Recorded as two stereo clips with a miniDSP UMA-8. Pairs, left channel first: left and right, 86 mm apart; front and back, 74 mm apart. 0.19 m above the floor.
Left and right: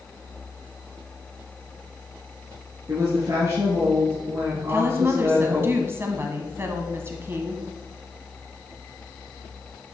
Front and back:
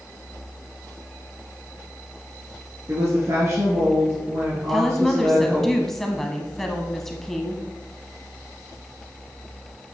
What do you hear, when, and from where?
2.9 s a woman speaking: 135° right, 3 m
4.7 s a woman speaking: 80° right, 1.1 m